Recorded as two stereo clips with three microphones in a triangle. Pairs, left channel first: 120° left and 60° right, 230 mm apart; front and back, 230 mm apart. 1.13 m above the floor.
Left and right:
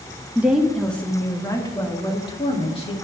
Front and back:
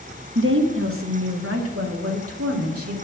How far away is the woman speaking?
About 1.0 m.